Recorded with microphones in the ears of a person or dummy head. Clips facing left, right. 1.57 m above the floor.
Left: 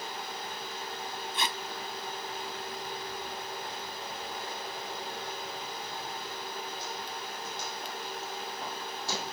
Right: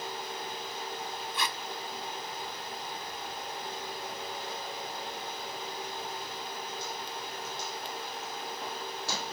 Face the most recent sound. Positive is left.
turn(degrees=25)  # may be behind; listen again after turning